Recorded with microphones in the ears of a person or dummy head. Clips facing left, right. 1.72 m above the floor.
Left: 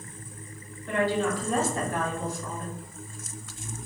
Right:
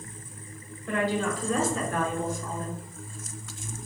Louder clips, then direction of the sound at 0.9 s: Left 1 dB; 75° right (ahead or behind).